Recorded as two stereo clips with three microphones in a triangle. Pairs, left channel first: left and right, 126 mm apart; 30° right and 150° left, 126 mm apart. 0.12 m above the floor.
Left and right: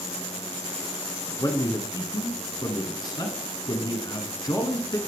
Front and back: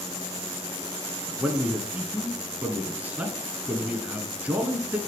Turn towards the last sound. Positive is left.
turn(degrees=85)